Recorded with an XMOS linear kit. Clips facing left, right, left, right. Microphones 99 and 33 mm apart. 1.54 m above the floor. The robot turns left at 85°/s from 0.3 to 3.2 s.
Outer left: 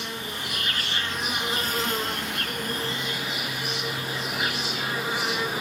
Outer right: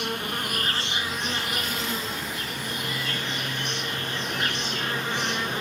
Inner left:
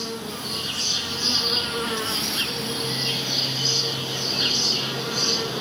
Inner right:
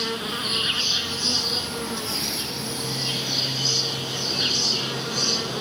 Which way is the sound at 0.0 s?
105° right.